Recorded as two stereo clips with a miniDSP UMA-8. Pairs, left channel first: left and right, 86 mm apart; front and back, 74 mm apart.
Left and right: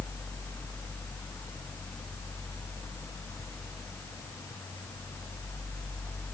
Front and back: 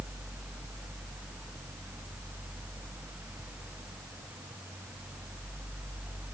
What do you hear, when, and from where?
Only background noise.